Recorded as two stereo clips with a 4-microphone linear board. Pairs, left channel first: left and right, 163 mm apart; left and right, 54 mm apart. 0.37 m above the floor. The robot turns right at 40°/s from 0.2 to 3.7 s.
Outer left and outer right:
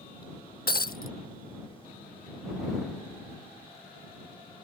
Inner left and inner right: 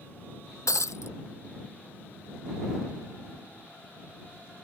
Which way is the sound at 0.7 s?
75° left (ahead or behind).